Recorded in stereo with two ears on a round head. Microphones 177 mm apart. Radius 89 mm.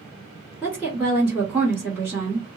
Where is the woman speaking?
5° left (ahead or behind), 1.4 m.